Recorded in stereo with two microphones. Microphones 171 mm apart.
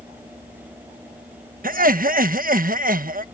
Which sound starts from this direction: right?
Laughter, at 1.6 s.